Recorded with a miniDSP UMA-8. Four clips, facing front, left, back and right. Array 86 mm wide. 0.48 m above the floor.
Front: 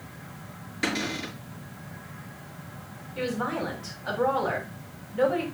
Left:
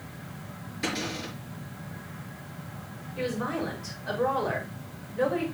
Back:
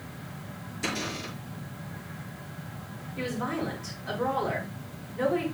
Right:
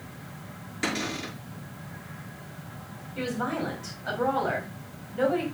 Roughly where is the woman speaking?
Ahead right.